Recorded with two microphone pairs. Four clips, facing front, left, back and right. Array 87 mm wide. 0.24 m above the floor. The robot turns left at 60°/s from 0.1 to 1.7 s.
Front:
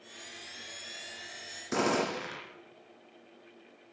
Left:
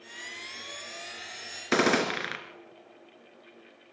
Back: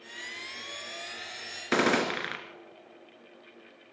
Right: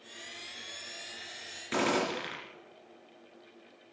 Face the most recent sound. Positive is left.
turn(degrees=125)